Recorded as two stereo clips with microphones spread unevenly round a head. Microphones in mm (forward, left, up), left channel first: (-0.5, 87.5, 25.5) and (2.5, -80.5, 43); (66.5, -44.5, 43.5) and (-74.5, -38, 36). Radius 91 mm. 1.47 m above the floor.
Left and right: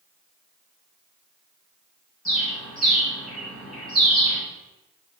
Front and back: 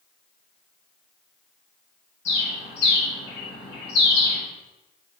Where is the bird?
Straight ahead, 2 m.